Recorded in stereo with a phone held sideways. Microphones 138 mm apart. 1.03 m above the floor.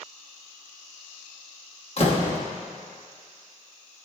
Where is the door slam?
45° left (ahead or behind), 1.3 m.